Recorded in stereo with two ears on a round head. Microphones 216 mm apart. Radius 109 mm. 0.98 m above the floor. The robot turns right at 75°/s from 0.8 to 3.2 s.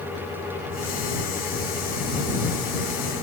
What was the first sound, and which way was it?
Only background noise.